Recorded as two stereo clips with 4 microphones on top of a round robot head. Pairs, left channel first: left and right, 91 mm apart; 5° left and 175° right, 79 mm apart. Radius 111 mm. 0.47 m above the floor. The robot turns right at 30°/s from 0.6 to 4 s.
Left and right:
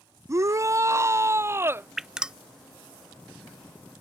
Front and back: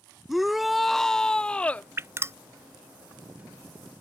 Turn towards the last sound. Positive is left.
turn(degrees=-110)